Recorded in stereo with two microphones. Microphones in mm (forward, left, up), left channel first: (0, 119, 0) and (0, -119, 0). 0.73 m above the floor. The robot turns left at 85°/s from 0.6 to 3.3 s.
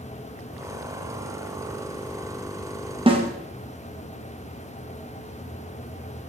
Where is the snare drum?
20° right (ahead or behind), 0.9 m; by 3.2 s 25° right (ahead or behind), 0.9 m.